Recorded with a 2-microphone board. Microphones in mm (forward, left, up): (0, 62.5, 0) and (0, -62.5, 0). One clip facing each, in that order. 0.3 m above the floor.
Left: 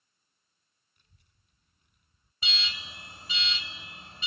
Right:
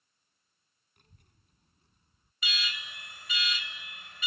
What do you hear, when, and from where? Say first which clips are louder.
1.0 s a child speaking: right 7 dB; 65° right (ahead or behind); by 2.3 s 25° right (ahead or behind)
2.4 s an alarm: right 1 dB; 30° left (ahead or behind)